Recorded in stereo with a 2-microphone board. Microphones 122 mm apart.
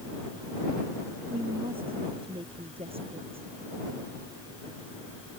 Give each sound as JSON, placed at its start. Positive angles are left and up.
{"t": 1.3, "sound": "a woman speaking", "side_deg": -50}